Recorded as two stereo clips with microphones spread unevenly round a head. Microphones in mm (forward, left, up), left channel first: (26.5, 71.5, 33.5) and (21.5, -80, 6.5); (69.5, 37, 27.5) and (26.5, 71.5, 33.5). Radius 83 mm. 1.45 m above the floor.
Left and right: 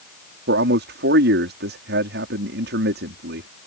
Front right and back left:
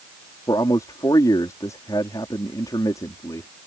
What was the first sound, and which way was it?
A man speaking, 85° right.